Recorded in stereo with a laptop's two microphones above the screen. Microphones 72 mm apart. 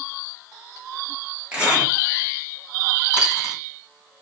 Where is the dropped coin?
15° right (ahead or behind), 2.5 m.